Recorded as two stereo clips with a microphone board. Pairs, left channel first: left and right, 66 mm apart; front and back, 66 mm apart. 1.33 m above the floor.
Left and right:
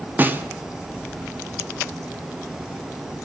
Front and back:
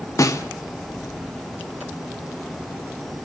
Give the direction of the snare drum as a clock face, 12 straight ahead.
1 o'clock.